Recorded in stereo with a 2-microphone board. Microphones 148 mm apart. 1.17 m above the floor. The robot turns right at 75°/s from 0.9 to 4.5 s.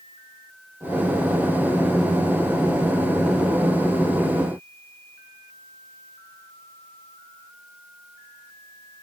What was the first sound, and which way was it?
Only background noise.